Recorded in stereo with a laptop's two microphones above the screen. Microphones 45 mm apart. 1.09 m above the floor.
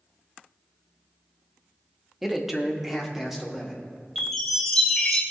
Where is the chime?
Centre (ahead or behind), 3.5 m.